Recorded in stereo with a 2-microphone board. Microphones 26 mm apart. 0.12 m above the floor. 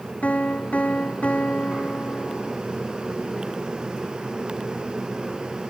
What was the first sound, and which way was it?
A piano, 80° left.